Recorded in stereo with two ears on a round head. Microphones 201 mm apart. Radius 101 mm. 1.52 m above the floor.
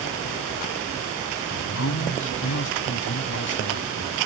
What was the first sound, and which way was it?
A man speaking, 60° left (ahead or behind).